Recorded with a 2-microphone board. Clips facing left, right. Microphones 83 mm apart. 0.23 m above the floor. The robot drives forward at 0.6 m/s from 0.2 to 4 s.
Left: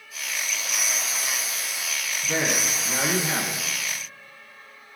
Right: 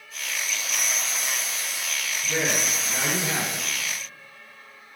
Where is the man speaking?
30° left (ahead or behind), 1.6 m; by 3.6 s 20° left (ahead or behind), 2 m.